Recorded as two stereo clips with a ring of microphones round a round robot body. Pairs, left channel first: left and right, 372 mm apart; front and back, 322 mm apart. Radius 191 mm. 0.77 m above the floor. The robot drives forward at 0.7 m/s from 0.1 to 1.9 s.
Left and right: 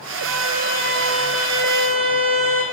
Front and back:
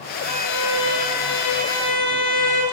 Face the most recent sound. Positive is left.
turn(degrees=-75)